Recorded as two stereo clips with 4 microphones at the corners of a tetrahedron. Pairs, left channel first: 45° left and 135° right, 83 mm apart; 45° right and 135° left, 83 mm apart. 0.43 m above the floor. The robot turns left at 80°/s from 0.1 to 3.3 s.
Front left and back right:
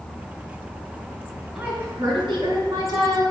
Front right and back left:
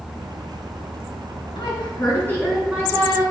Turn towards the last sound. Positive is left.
turn(degrees=170)